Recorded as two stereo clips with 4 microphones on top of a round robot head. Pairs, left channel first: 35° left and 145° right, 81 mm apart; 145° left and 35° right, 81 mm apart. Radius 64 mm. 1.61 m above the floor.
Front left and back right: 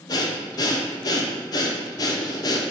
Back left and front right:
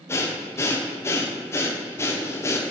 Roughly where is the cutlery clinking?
I don't hear cutlery clinking.